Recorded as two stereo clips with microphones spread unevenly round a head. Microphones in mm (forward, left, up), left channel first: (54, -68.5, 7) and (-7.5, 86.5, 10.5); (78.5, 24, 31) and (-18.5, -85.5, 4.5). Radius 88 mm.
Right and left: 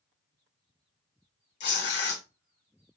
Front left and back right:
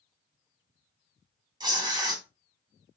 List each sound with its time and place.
1.6 s tearing paper: 65° right, 1.5 m